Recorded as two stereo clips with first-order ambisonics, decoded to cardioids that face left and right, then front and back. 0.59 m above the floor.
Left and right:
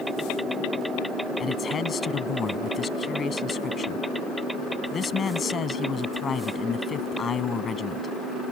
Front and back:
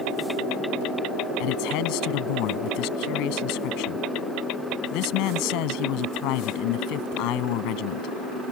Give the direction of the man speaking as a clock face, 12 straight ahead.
11 o'clock.